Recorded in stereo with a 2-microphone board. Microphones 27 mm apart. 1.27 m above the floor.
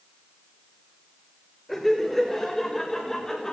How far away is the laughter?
About 5.5 m.